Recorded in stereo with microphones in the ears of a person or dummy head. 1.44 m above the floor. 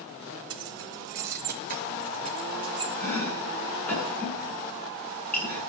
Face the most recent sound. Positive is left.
turn(degrees=5)  # may be behind; listen again after turning